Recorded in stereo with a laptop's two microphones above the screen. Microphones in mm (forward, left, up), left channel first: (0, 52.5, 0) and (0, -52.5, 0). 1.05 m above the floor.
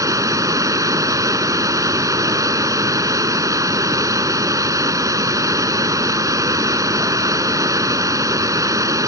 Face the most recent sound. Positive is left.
turn(degrees=-35)  # may be behind; listen again after turning